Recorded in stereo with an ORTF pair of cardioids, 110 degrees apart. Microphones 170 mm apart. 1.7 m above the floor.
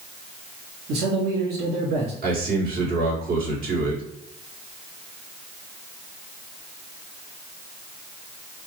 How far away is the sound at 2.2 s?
About 2.0 m.